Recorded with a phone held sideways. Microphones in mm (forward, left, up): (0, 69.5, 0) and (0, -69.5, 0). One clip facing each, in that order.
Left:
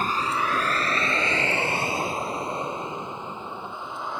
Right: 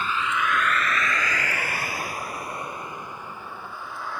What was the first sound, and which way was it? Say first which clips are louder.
A vehicle: left 1 dB; 40° left (ahead or behind).